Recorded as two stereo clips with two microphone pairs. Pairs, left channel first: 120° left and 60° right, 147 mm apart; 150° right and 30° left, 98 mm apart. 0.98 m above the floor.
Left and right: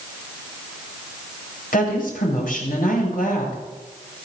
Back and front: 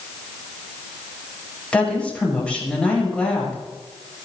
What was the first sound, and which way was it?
A woman speaking, 130° left.